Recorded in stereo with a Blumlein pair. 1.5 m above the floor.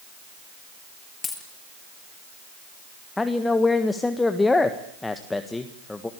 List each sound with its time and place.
1.2 s a dropped coin: 15° left, 6 m
3.2 s a man speaking: 10° left, 1.6 m